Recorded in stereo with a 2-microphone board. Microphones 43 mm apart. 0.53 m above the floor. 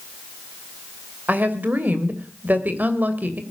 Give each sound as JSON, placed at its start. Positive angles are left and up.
{"t": 1.3, "sound": "a woman speaking", "side_deg": -40, "distance_m": 2.5}